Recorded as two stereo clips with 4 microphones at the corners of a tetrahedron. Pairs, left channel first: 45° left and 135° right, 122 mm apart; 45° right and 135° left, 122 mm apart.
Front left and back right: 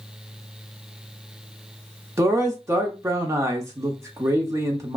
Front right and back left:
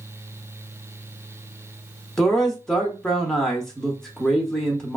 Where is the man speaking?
125° right, 0.7 m.